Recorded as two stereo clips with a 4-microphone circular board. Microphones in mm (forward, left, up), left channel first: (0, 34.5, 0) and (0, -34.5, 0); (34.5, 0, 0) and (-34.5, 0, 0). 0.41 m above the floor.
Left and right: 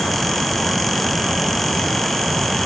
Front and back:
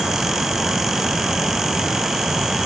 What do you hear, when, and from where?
Only background noise.